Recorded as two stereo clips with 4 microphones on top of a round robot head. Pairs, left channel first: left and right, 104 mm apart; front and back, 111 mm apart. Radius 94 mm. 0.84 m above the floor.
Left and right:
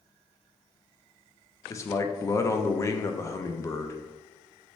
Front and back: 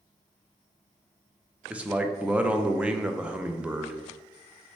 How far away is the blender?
No blender in this recording.